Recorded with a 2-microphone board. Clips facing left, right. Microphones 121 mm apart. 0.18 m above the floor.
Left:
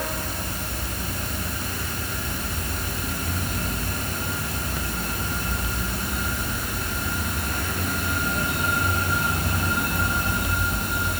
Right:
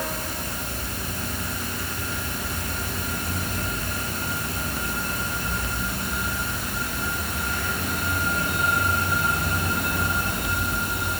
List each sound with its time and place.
Only background noise.